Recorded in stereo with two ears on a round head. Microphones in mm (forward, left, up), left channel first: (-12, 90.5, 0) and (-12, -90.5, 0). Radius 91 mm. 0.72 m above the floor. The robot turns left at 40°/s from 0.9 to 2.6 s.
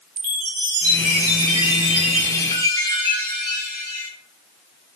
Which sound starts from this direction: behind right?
A chime, at 0.2 s.